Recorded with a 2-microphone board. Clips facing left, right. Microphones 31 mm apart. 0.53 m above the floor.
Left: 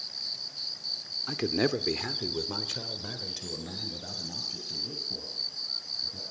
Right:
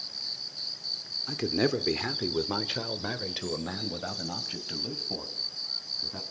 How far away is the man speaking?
About 1.1 m.